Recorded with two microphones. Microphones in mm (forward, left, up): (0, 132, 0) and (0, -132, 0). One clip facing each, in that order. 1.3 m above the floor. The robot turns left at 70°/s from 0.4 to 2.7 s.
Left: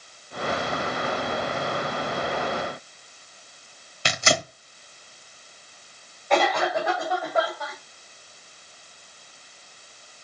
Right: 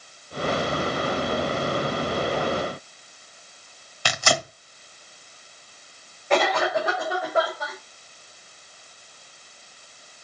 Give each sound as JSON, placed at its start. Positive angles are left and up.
{"t": 4.0, "sound": "tearing paper", "side_deg": 20, "distance_m": 1.2}
{"t": 6.3, "sound": "a cough", "side_deg": -15, "distance_m": 4.0}